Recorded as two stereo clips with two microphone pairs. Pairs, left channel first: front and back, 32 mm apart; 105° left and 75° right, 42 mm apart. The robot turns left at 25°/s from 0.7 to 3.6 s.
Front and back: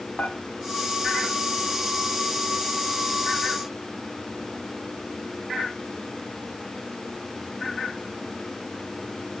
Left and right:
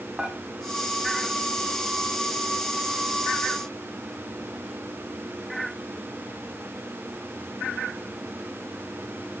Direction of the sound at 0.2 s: Straight ahead.